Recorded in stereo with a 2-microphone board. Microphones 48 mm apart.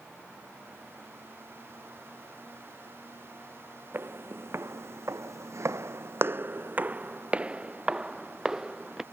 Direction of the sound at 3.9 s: 50° right (ahead or behind).